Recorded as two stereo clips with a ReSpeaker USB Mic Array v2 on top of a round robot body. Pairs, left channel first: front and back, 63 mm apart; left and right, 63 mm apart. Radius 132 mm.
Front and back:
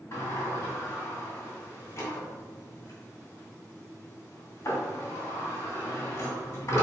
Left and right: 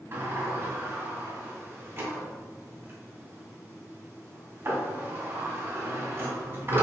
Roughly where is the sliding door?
Ahead right.